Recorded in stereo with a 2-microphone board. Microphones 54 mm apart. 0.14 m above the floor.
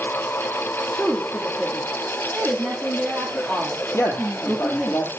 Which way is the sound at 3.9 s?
45° left (ahead or behind).